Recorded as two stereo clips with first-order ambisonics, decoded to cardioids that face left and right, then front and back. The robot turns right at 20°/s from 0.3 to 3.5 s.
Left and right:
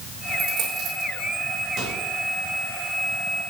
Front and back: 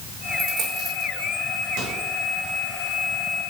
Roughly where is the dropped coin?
Behind right.